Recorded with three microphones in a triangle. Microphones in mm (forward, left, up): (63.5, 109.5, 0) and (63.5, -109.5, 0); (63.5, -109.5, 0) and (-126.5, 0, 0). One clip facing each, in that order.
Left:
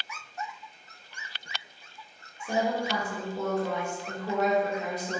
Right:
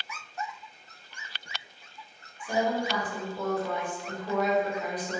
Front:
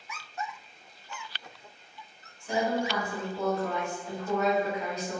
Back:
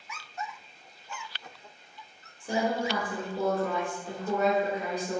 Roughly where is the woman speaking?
Behind left.